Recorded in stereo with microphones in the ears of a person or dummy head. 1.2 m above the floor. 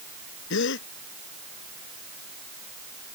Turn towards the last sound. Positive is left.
turn(degrees=70)  # may be behind; listen again after turning